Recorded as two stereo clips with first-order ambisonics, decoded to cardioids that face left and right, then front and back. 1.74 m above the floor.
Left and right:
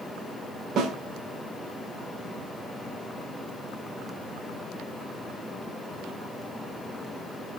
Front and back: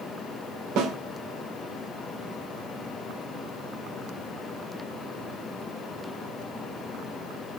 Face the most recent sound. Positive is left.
turn(degrees=-150)